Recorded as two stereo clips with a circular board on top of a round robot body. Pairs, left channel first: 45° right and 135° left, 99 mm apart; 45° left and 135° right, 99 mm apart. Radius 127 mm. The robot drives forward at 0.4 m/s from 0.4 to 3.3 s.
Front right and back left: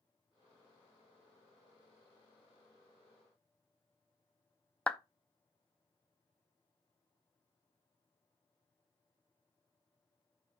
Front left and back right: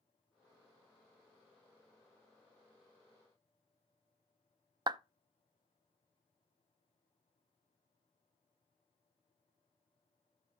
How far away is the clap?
About 0.7 m.